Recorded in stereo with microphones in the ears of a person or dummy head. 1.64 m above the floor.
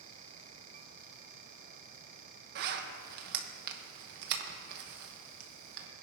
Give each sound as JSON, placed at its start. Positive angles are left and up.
{"t": 2.5, "sound": "a zipper", "side_deg": -60, "distance_m": 1.2}